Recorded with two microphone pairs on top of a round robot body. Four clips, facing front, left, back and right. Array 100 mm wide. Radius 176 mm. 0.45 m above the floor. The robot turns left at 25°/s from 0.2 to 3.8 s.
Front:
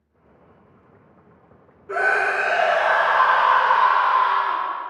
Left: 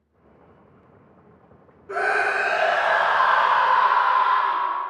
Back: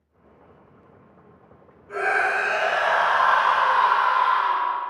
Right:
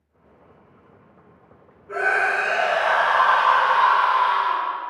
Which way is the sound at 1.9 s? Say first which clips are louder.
Right 1 dB, front 2 dB; 25° left.